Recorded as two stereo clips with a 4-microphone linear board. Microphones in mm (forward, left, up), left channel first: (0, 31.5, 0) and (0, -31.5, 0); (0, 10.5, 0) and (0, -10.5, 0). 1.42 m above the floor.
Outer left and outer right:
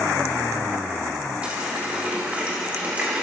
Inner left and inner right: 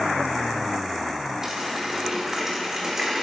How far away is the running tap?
About 2.5 m.